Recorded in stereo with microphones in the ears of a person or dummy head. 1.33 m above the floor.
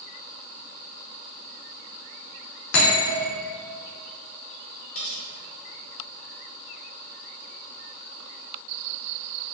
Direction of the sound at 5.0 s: 70° left (ahead or behind).